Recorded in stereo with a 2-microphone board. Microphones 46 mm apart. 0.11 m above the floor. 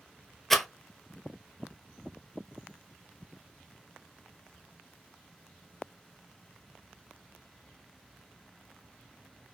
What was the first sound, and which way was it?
A rattle, 10° left (ahead or behind).